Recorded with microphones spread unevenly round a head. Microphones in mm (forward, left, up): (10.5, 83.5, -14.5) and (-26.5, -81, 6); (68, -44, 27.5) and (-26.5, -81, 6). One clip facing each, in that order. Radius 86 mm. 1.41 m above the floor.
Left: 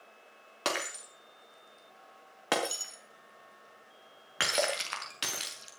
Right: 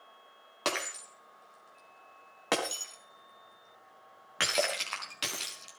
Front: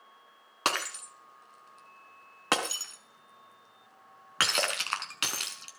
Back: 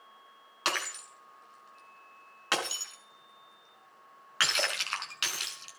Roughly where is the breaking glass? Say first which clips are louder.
Even, front 3 dB; ahead.